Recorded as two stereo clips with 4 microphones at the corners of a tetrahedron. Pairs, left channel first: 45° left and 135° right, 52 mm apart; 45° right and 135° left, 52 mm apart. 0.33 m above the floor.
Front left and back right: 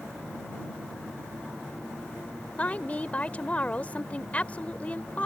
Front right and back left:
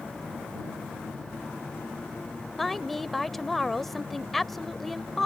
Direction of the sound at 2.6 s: 40° left.